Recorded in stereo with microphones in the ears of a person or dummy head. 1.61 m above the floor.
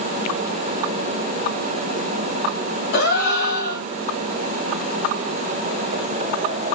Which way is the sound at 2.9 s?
60° left (ahead or behind).